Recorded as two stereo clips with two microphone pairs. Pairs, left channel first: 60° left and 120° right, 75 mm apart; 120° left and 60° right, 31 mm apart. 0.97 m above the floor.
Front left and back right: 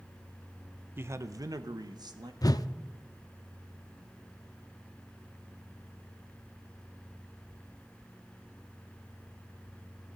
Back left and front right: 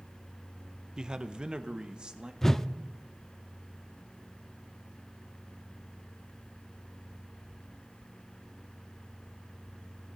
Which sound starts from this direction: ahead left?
A whoosh, at 2.4 s.